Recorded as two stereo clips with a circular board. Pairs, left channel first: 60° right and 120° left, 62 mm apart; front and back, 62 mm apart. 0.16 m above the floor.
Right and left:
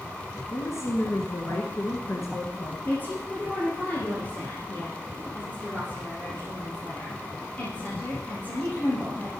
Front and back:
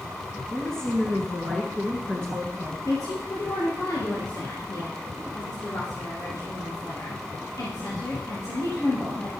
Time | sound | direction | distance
0.5 | a woman speaking | 75° right | 1.6 m
2.9 | a woman speaking | straight ahead | 3.5 m